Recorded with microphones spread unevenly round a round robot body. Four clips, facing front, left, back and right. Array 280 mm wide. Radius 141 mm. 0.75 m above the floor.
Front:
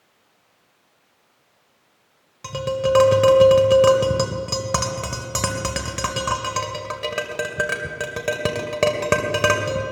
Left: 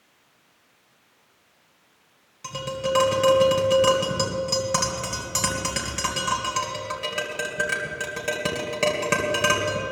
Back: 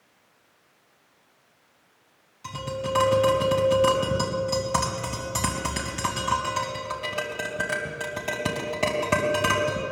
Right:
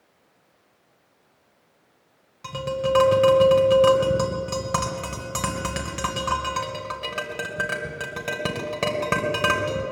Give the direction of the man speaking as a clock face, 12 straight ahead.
No man speaking in this recording.